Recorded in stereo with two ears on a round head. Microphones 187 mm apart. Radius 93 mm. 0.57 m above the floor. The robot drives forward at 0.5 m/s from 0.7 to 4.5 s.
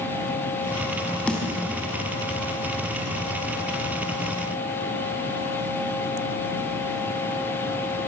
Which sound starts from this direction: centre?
A snare drum, at 1.3 s.